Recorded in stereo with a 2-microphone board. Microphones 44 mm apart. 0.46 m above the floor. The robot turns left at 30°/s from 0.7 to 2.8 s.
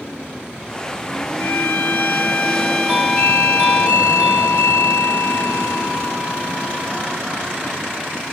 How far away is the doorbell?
About 4 m.